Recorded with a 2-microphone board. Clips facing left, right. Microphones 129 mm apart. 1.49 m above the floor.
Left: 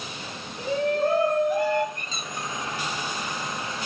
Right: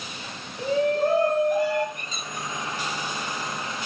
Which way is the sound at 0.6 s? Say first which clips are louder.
Right 2 dB; 5° right (ahead or behind).